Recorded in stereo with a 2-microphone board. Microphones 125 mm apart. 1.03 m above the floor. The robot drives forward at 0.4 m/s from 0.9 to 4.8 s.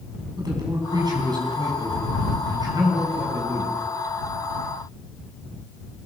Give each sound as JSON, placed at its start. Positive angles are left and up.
{"t": 0.4, "sound": "a man speaking", "side_deg": -35, "distance_m": 7.5}